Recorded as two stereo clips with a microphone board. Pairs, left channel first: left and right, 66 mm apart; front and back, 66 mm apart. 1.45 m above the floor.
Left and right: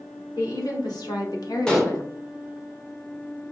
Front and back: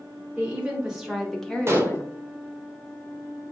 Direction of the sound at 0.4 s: 110° left.